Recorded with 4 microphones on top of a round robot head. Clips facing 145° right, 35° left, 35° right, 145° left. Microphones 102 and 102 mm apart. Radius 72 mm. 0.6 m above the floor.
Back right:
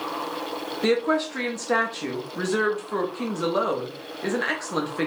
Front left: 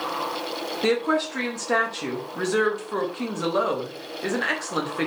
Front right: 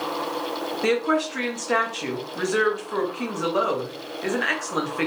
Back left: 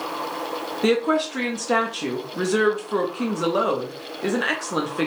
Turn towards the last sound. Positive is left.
turn(degrees=130)